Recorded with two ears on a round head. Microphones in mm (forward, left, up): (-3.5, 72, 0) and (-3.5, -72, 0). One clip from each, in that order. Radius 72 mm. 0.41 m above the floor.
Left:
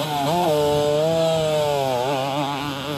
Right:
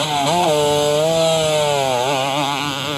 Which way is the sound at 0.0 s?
40° right (ahead or behind).